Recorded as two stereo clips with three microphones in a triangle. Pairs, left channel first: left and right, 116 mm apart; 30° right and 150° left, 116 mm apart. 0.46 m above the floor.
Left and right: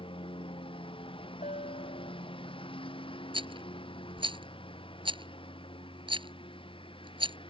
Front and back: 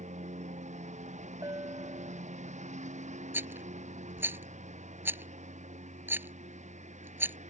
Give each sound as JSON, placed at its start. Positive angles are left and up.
{"t": 0.0, "sound": "a lawn mower", "azimuth_deg": 135}
{"t": 1.4, "sound": "a bell", "azimuth_deg": 90}
{"t": 3.3, "sound": "a rattle", "azimuth_deg": -135}